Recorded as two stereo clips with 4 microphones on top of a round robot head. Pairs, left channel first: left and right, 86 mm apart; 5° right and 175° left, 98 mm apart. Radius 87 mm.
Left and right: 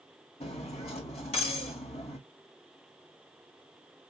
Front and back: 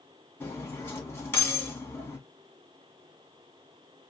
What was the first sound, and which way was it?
Cutlery clinking, 65° left.